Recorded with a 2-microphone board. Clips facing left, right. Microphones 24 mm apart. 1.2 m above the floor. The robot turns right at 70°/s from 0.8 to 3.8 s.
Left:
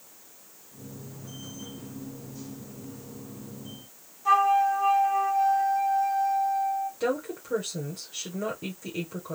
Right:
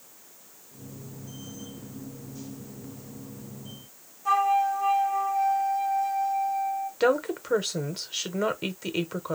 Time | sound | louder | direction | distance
4.2 | a flute | left 2 dB | 15° left (ahead or behind) | 1.5 m
7.0 | a woman speaking | right 5 dB | 50° right (ahead or behind) | 0.9 m